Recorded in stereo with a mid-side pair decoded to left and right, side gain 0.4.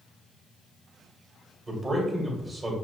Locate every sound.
1.7 s a man speaking: 30° right, 1.7 m